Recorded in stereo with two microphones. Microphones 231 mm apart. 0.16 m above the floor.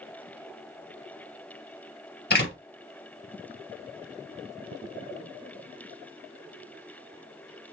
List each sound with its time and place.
2.3 s a door slam: 50° left (ahead or behind), 2.5 m